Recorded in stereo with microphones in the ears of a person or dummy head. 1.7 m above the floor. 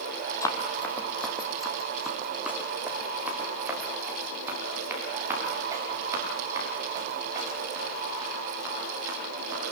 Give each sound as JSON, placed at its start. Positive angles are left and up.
{"t": 0.4, "sound": "running footsteps", "side_deg": 20, "distance_m": 2.5}